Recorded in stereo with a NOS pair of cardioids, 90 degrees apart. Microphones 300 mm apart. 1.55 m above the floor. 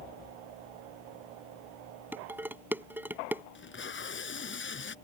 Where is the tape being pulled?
40° left.